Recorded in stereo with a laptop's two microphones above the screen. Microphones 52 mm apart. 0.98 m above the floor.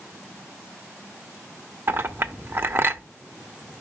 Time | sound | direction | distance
1.9 | a clink | 45° right (ahead or behind) | 0.8 m